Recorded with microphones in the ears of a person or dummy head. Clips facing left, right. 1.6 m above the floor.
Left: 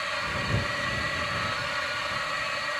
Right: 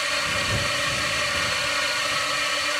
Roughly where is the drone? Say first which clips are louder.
Right 4 dB; right.